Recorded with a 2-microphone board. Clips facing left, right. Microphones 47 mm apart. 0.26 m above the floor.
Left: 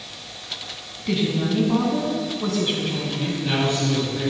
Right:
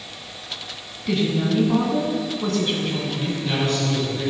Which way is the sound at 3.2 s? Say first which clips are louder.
Left 3 dB; 25° left (ahead or behind).